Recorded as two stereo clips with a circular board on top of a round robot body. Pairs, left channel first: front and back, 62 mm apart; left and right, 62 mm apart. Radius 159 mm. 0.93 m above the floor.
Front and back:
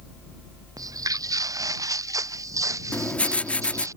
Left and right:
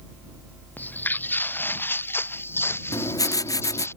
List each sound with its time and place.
0.8 s footsteps: 155° left; by 3.9 s 145° left
2.9 s writing: 70° left